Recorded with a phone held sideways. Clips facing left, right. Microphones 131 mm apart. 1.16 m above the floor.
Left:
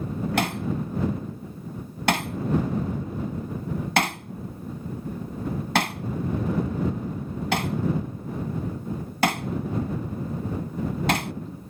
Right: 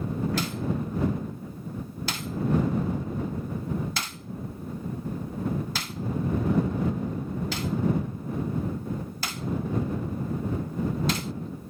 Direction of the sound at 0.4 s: 70° left (ahead or behind).